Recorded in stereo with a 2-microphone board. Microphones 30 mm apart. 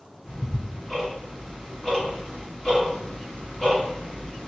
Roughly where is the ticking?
Left.